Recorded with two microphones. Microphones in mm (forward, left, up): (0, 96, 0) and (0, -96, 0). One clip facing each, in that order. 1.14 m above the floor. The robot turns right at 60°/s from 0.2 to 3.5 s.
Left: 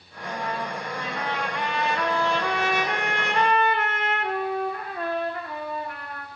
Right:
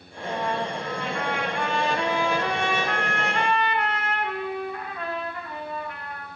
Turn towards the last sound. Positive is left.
turn(degrees=55)